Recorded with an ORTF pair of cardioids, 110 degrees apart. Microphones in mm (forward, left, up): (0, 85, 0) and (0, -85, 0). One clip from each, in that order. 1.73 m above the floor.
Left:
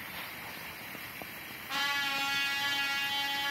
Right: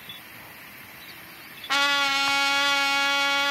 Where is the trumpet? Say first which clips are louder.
Right 10 dB; 65° right, 1.3 m.